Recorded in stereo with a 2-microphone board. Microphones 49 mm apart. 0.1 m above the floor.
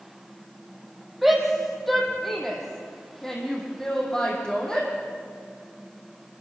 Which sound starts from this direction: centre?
A shout, at 1.2 s.